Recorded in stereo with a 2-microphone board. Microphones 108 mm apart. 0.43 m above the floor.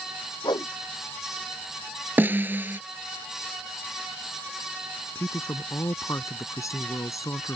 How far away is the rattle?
I don't hear a rattle.